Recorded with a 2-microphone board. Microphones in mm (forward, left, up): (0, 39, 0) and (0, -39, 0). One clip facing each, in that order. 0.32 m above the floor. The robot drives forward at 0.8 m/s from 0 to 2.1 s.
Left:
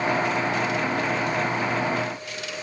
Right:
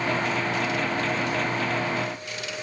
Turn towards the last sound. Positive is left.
No sound to turn to.